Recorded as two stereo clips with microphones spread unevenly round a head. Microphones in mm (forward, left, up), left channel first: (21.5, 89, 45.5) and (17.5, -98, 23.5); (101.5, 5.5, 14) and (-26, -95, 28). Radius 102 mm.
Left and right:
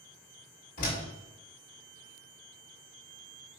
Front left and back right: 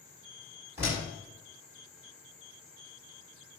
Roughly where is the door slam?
Behind left.